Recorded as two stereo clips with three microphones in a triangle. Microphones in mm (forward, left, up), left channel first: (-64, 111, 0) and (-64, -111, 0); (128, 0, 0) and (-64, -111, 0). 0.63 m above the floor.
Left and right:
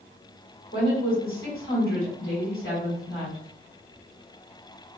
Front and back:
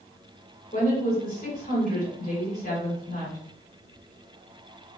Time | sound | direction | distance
0.7 | a woman speaking | 80° left | 2.0 m